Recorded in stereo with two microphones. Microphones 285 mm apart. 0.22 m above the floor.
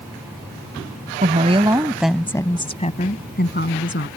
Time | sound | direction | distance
1.2 | a woman speaking | 30° right (ahead or behind) | ?